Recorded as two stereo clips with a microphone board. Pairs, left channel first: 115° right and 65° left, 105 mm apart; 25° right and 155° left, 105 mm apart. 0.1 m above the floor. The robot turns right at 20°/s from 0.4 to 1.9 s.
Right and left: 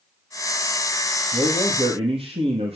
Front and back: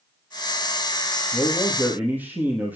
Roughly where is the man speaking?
Left.